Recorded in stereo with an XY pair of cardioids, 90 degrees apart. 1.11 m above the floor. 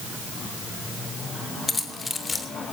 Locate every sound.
1.7 s keys jangling: 30° left, 3 m